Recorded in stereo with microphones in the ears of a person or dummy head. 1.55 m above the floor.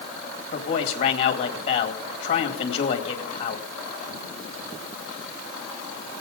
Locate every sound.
0.5 s a man speaking: 40° left (ahead or behind), 2 m